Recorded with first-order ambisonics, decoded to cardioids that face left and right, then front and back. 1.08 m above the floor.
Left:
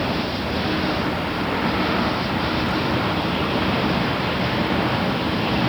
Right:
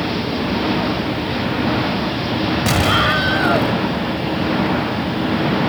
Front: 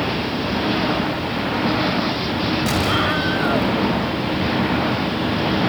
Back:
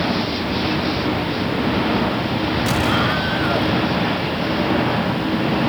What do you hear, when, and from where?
2.7 s an explosion: 85° right